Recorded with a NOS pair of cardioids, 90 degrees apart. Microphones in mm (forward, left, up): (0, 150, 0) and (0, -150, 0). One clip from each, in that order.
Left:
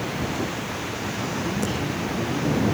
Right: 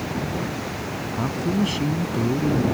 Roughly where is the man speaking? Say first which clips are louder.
Right 4 dB; ahead right.